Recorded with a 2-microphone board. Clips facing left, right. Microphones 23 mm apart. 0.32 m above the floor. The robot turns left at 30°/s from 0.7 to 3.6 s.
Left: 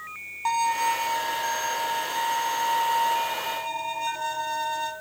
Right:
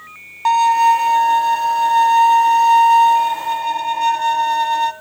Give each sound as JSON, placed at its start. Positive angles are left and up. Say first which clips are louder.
{"t": 0.5, "sound": "a violin", "louder": "right 12 dB", "azimuth_deg": -40, "distance_m": 0.7}